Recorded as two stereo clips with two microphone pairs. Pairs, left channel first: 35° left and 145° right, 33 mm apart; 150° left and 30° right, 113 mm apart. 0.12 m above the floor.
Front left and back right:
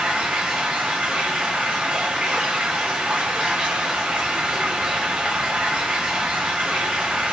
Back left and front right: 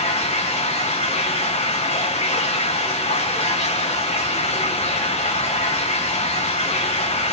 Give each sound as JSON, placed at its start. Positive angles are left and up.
{"t": 0.0, "sound": "running water", "azimuth_deg": 145, "distance_m": 5.5}